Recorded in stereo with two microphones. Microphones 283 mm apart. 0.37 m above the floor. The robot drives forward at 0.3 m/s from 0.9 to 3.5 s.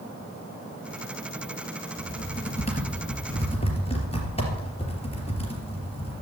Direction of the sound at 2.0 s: 25° left (ahead or behind).